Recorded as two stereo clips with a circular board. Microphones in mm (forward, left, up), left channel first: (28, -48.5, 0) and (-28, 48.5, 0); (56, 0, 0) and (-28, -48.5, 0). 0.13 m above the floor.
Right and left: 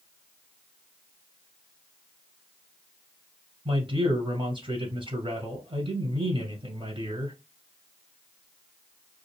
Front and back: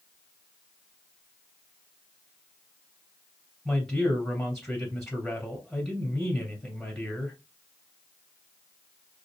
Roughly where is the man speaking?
Behind left.